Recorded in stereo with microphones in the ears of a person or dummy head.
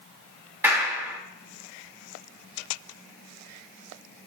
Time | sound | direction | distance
0.6 | a clap | 10° right (ahead or behind) | 3 m